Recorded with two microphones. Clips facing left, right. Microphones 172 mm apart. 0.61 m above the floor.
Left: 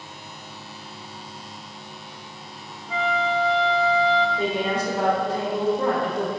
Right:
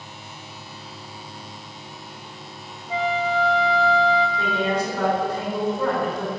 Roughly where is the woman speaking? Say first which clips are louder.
Even; left.